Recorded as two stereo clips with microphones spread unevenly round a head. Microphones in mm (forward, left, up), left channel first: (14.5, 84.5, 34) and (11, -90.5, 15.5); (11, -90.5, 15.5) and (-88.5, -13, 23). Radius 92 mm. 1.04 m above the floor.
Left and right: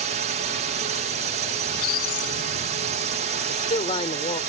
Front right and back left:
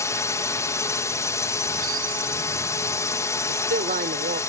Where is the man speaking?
150° left.